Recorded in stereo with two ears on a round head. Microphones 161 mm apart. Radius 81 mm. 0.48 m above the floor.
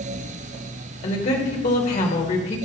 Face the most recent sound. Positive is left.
turn(degrees=45)  # may be behind; listen again after turning